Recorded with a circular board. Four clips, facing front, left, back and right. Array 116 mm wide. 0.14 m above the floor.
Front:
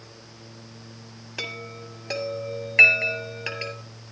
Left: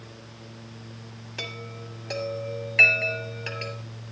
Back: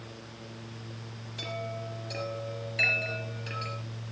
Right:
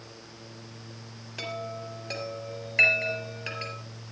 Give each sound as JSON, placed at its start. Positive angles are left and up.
{"t": 1.4, "sound": "a chime", "azimuth_deg": 0, "distance_m": 3.5}